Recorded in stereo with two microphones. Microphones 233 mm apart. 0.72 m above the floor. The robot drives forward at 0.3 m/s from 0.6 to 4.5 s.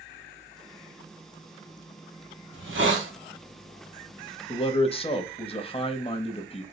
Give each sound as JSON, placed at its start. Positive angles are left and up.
{"t": 2.5, "sound": "a hiss", "side_deg": -60, "distance_m": 1.9}
{"t": 4.5, "sound": "a man speaking", "side_deg": 25, "distance_m": 0.6}